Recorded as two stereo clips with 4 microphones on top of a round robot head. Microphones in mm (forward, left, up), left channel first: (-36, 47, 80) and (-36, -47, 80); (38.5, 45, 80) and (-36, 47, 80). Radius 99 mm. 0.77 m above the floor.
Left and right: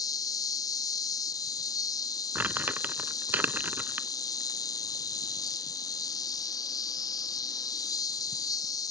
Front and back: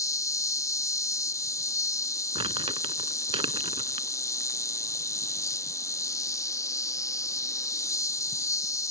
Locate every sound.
0.0 s an insect: 40° left
2.4 s crumpling: 165° right